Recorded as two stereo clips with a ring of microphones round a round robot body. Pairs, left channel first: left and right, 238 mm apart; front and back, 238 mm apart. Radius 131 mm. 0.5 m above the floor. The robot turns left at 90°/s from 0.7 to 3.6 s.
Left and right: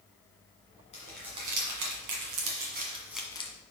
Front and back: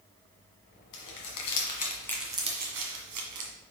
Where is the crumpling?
25° left, 1.6 m; by 3.5 s 150° left, 1.6 m.